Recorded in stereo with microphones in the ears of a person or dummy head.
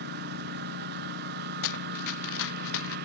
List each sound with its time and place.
0.0 s a lawn mower: 60° right (ahead or behind)
1.6 s running footsteps: 80° left; by 3.0 s 75° left (ahead or behind)